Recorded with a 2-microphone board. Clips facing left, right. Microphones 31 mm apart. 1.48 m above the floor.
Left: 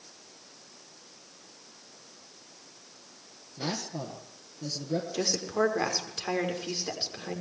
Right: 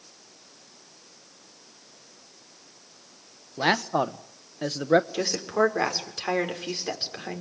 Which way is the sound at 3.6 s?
75° right (ahead or behind).